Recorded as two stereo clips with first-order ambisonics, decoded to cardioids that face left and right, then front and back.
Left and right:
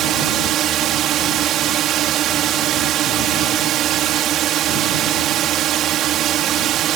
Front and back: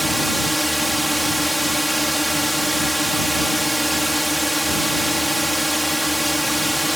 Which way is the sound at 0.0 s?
90° right.